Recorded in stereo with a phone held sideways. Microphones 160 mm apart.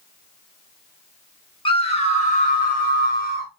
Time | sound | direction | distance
1.6 | a scream | 35° left (ahead or behind) | 1.3 m